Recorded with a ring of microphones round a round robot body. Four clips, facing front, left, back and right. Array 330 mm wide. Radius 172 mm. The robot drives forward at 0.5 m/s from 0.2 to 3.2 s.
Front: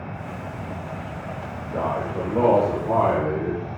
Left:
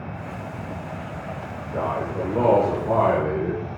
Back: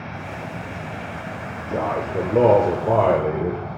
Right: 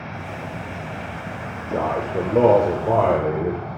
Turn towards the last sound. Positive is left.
turn(degrees=-140)